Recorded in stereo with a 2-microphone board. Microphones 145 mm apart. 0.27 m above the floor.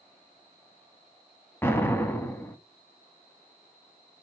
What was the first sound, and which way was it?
An explosion, 15° left (ahead or behind).